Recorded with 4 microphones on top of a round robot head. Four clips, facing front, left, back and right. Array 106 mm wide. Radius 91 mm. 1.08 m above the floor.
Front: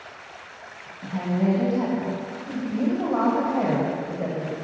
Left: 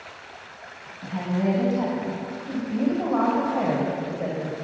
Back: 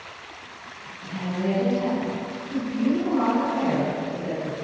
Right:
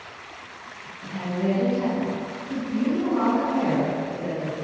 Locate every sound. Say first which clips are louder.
1.0 s a woman speaking: left 1 dB, front 3 dB; 55° left, 8 m; by 4.5 s 45° left, 6 m